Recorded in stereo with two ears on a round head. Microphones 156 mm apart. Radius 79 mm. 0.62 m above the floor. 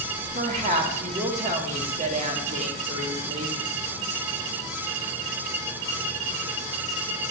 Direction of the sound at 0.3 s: 40° right (ahead or behind).